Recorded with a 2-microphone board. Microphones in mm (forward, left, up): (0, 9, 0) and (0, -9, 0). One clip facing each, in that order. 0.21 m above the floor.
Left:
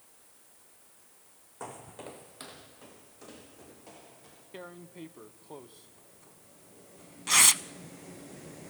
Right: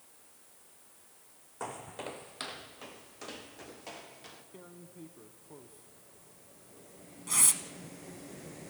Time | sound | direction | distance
1.6 | footsteps | 15° right (ahead or behind) | 0.9 m
4.5 | tearing paper | 55° left (ahead or behind) | 0.5 m